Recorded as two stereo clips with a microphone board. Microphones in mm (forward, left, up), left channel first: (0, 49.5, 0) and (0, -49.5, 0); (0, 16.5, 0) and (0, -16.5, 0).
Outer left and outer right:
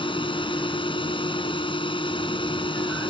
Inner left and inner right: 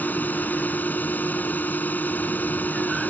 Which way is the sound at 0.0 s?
60° left (ahead or behind).